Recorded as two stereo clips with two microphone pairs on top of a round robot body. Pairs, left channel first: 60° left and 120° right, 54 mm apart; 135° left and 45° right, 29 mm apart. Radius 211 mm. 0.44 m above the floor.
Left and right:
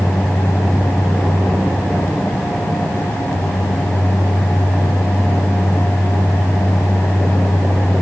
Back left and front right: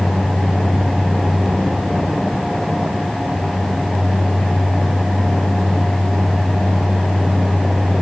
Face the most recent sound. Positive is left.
No sound to turn to.